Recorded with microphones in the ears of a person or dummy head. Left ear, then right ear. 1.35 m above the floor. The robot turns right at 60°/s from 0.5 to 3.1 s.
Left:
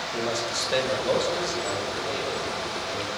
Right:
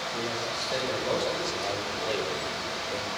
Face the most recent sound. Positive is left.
turn(degrees=-75)